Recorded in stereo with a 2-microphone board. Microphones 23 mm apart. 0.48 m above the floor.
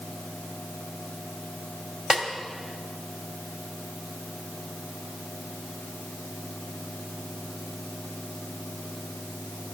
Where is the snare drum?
15° right (ahead or behind), 2.0 m.